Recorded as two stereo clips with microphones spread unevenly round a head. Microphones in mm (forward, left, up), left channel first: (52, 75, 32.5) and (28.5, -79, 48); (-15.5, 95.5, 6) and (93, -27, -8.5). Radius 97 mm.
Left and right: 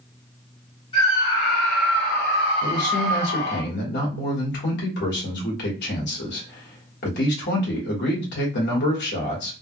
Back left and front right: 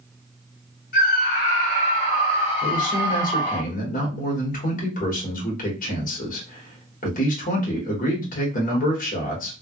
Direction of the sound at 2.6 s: 95° left.